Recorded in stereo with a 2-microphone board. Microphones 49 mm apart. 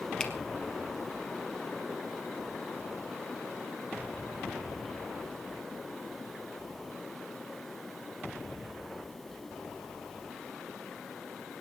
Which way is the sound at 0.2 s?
15° left (ahead or behind).